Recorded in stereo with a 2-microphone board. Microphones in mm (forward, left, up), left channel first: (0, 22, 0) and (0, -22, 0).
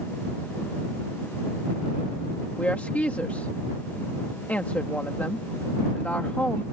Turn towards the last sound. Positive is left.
turn(degrees=35)  # may be behind; listen again after turning